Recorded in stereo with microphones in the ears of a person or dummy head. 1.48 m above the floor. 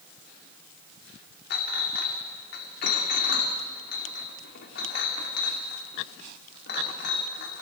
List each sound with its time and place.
1.5 s a clink: 50° left (ahead or behind), 2 m